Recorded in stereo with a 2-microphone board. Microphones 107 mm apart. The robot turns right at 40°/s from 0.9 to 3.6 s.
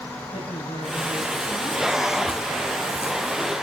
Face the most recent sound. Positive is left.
turn(degrees=-155)